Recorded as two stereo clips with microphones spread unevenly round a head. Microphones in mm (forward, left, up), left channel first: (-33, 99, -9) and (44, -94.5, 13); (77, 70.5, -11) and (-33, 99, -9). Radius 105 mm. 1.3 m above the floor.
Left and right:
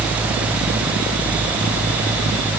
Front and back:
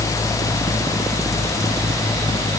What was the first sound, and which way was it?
Only background noise.